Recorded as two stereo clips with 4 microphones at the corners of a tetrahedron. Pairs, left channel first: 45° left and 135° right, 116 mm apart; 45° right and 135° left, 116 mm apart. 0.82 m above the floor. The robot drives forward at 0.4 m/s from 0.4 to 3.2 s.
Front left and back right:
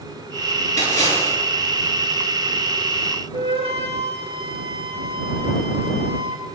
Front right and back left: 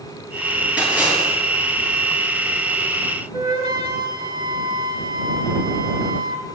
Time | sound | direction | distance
0.8 | a splash | 145° right | 7.5 m
3.3 | a flute | 175° right | 2.0 m